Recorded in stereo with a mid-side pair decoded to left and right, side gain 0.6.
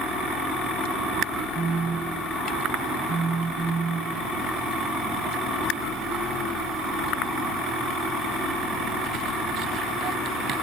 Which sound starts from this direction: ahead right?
A phone buzzing, at 1.6 s.